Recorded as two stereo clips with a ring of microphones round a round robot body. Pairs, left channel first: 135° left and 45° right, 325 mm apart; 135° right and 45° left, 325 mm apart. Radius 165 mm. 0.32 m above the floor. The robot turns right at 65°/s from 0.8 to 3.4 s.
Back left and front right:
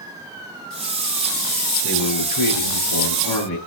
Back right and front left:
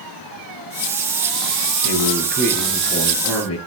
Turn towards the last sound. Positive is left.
turn(degrees=180)